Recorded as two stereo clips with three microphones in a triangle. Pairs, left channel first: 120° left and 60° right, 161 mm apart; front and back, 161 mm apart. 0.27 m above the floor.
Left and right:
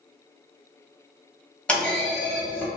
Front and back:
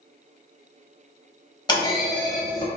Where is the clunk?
40° left, 0.9 m.